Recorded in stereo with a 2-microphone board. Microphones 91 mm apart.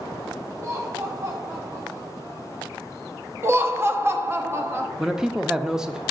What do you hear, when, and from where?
0.6 s laughter: 35° right (ahead or behind), 0.8 m
3.4 s laughter: 30° right (ahead or behind), 0.7 m
5.0 s a man speaking: 5° right (ahead or behind), 0.5 m